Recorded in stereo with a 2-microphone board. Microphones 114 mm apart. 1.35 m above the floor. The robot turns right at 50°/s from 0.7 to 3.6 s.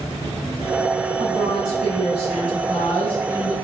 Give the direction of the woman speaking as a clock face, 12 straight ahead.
4 o'clock.